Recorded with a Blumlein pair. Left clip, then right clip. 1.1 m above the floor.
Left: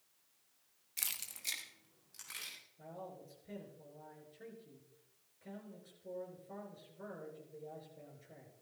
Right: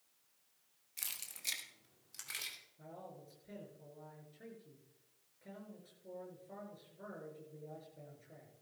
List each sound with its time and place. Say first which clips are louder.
1.0 s keys jangling: left 3 dB; 15° left, 0.9 m; by 2.6 s 20° right, 3 m
2.8 s a man speaking: left 3 dB; straight ahead, 5.5 m